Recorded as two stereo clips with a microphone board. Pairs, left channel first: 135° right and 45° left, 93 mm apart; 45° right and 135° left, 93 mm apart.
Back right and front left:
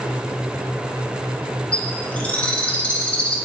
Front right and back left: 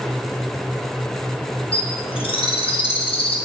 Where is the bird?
55° right, 0.7 m.